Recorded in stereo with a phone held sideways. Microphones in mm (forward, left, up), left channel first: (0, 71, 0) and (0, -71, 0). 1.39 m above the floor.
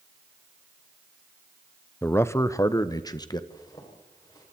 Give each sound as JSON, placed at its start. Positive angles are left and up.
{"t": 2.0, "sound": "a man speaking", "side_deg": 15, "distance_m": 0.8}
{"t": 3.5, "sound": "a zipper", "side_deg": 30, "distance_m": 6.5}